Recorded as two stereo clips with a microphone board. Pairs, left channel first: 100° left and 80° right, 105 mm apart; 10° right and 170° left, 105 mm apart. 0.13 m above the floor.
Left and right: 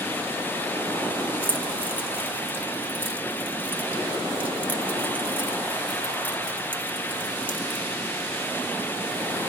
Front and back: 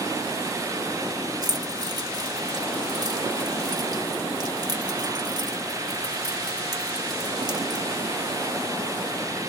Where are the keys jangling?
150° right, 1.3 m.